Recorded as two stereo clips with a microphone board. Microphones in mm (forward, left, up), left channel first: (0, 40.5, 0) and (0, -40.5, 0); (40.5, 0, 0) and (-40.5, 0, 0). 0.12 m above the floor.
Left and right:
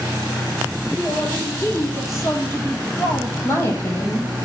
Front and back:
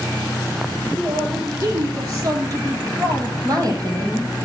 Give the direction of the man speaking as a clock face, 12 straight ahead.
7 o'clock.